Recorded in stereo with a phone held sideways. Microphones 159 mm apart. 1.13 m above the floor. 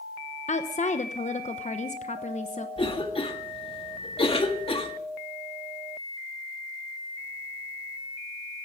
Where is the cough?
35° left (ahead or behind), 1.6 m.